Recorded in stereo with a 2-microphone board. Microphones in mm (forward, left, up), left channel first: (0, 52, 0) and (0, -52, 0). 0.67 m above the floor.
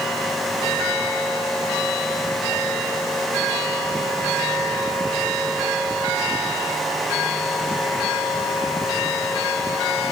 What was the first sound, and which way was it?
Only background noise.